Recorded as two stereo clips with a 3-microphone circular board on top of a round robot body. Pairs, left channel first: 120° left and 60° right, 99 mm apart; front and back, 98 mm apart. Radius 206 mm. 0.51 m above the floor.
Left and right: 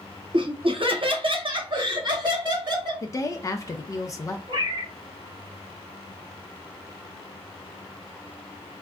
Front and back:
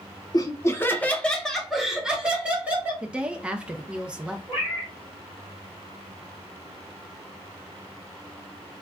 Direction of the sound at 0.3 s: 45° right.